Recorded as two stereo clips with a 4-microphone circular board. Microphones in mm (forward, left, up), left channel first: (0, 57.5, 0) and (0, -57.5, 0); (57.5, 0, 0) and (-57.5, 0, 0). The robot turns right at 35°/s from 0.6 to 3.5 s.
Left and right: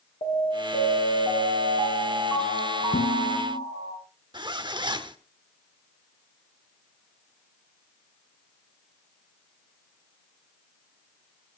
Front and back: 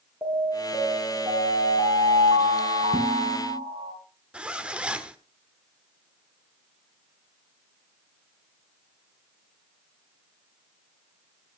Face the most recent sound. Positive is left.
turn(degrees=-105)